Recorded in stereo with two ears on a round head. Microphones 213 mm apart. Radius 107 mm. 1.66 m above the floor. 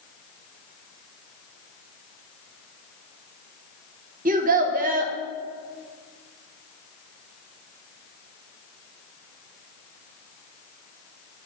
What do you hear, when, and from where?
4.2 s a child speaking: 35° right (ahead or behind), 0.9 m